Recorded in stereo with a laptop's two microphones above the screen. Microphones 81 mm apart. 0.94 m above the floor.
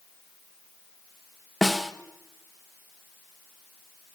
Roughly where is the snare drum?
Centre.